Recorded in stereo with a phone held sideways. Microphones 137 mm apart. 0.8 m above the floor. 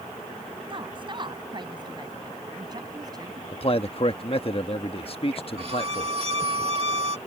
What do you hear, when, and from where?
0.7 s a woman speaking: 40° right (ahead or behind); by 3.4 s 30° right (ahead or behind)
3.5 s a man speaking: 45° left (ahead or behind)
5.6 s a violin: 50° right (ahead or behind)